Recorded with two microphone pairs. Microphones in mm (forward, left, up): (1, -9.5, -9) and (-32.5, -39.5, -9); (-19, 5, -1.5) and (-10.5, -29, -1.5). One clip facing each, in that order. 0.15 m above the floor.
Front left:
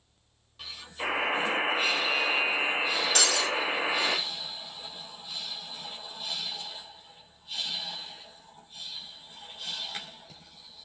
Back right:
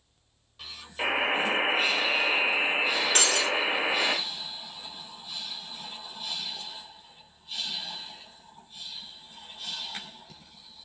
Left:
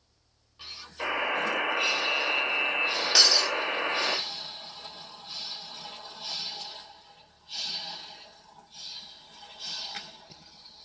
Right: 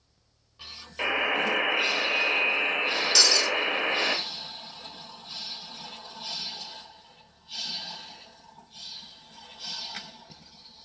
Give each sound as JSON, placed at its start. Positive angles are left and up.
{"t": 1.0, "sound": "a buzzer", "azimuth_deg": -100, "distance_m": 2.0}
{"t": 3.1, "sound": "breaking glass", "azimuth_deg": 175, "distance_m": 0.8}